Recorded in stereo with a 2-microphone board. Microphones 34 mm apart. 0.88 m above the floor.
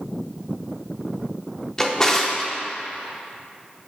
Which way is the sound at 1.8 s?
15° left (ahead or behind).